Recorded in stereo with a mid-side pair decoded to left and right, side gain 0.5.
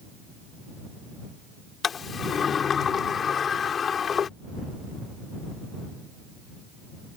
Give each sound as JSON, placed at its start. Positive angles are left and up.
{"t": 1.8, "sound": "a sliding door", "azimuth_deg": 45}